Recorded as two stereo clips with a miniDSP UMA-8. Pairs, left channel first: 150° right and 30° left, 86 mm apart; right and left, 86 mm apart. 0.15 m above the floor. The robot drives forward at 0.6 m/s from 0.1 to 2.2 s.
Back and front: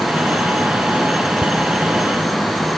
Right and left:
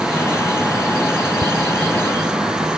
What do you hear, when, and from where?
1.4 s ticking: 110° left